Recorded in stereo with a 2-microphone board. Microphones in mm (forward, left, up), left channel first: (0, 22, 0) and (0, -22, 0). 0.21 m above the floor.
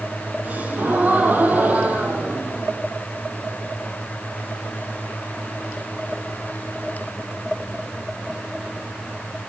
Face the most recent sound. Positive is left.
turn(degrees=-45)  # may be behind; listen again after turning